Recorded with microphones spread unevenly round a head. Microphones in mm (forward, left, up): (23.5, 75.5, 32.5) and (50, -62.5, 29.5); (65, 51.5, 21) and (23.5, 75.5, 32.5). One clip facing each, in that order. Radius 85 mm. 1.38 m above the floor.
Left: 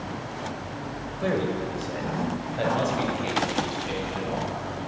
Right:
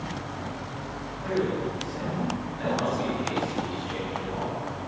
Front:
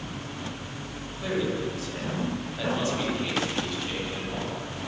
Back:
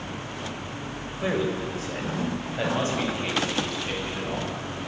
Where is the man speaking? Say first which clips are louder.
Left 1 dB, back 2 dB; 100° left, 6.5 m; by 4.5 s 110° left, 10.5 m.